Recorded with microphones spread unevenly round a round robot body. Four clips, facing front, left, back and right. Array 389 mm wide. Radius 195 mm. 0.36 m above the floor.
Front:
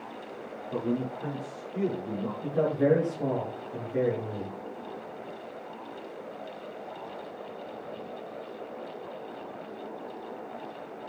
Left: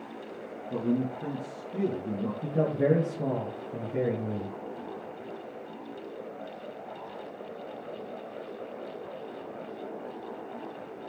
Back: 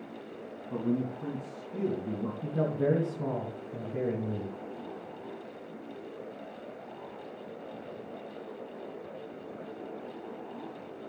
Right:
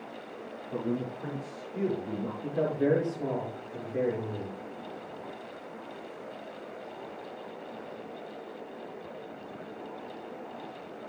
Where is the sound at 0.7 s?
130° left, 3.5 m.